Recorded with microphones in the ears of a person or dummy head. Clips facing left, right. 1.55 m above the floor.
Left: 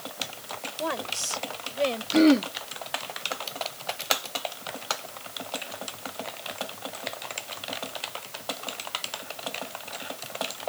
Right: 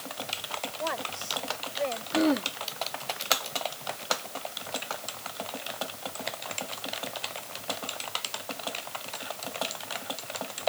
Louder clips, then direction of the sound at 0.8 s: Left 4 dB; 40° left (ahead or behind).